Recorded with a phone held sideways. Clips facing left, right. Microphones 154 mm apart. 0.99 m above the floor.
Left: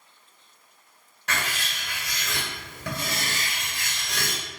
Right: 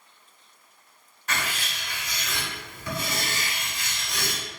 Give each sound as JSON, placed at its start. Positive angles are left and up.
{"t": 1.3, "sound": "writing", "side_deg": 75, "distance_m": 1.6}